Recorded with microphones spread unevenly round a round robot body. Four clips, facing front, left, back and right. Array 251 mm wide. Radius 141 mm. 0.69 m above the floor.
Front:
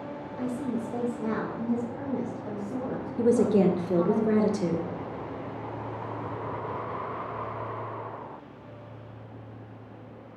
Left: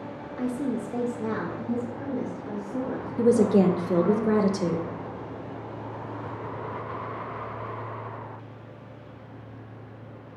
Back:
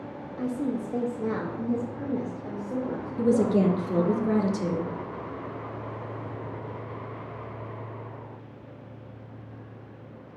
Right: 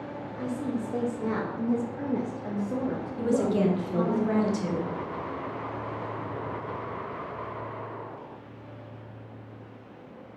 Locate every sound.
0.4 s a woman speaking: 145° left, 1.5 m; by 4.2 s 75° right, 2.5 m
3.2 s a woman speaking: 75° left, 1.0 m